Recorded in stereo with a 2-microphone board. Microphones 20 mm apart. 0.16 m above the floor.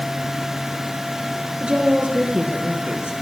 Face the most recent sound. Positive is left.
turn(degrees=-60)  # may be behind; listen again after turning